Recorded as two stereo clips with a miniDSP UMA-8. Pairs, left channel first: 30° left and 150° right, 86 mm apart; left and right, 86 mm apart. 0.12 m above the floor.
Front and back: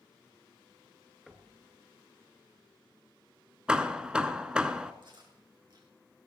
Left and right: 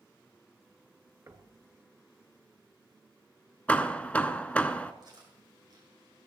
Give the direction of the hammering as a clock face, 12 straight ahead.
7 o'clock.